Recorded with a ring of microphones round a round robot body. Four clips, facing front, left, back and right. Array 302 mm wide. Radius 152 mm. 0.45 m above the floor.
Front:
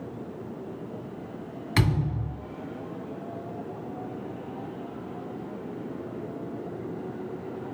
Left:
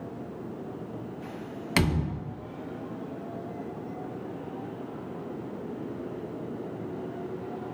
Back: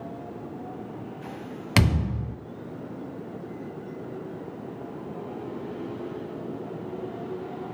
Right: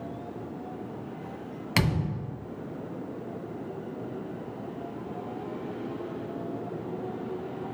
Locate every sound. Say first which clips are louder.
1.8 s a thud: left 1 dB, back 2 dB; straight behind, 0.5 m